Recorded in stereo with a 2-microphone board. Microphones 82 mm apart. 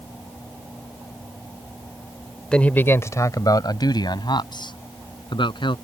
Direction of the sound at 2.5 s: 10° left (ahead or behind).